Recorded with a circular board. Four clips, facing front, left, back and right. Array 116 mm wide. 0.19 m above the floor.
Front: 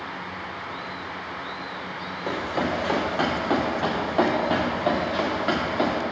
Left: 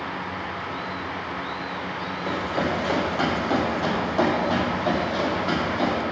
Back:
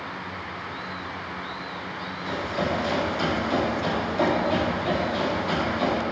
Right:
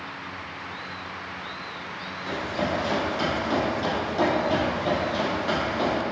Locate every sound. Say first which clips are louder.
2.3 s running footsteps: left 2 dB, front 1 dB; 30° left, 3.5 m; by 6.0 s straight ahead, 4 m